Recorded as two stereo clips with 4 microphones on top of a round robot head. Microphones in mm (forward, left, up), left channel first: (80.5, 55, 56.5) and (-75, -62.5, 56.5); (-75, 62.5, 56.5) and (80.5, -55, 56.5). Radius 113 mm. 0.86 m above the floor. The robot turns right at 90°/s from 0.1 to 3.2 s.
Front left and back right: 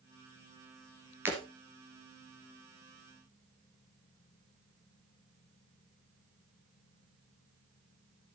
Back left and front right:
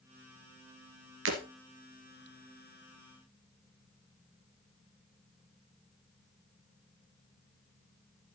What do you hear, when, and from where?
1.2 s breaking glass: 65° right, 2.5 m; by 1.4 s 50° right, 2.5 m